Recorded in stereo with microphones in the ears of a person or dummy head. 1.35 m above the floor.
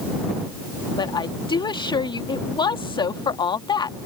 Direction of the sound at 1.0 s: 20° left (ahead or behind).